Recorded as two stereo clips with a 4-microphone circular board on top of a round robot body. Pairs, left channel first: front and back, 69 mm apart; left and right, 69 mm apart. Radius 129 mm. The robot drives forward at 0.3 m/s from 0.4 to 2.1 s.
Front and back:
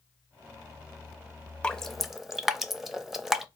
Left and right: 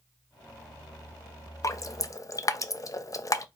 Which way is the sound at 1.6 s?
75° left.